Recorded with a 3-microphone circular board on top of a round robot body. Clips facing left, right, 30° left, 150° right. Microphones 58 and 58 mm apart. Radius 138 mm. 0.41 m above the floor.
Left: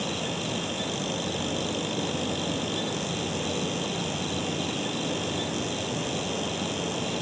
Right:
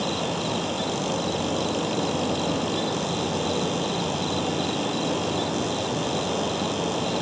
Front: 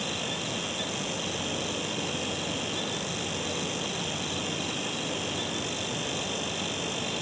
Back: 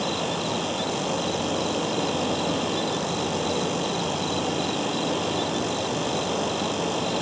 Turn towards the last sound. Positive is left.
turn(degrees=-120)